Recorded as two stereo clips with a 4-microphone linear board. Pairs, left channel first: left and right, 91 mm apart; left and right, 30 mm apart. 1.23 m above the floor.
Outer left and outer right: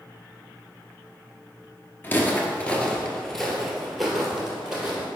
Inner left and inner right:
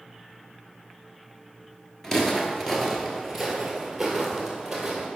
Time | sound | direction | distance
2.0 | footsteps | 25° left (ahead or behind) | 1.3 m